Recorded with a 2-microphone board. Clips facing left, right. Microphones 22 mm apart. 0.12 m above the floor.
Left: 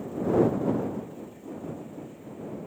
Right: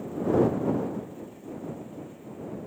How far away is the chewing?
I don't hear chewing.